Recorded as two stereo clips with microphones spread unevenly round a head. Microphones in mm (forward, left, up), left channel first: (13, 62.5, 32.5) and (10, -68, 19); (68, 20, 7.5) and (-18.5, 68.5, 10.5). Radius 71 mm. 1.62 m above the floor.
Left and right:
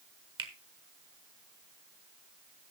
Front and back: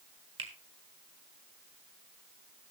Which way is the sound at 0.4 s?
150° right.